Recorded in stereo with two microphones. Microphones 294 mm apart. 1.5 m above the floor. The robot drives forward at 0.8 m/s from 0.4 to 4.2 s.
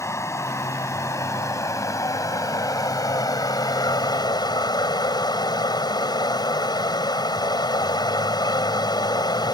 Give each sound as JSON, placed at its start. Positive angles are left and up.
{"t": 0.0, "sound": "running water", "side_deg": 10}